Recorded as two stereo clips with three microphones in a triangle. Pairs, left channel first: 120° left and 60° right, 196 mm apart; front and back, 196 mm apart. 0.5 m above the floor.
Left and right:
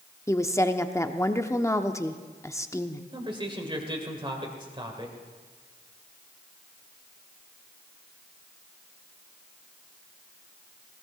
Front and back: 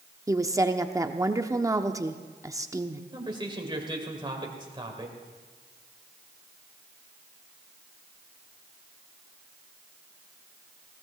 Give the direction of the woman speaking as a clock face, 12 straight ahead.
7 o'clock.